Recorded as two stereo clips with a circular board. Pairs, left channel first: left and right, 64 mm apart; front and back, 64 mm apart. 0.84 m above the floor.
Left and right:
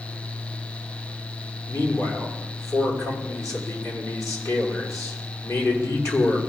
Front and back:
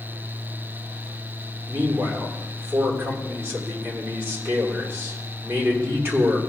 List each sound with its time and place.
1.7 s a man speaking: 125° left, 2.5 m